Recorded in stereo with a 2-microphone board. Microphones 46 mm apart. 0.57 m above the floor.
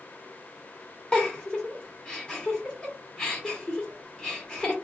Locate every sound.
1.1 s a giggle: 15° left (ahead or behind), 1.8 m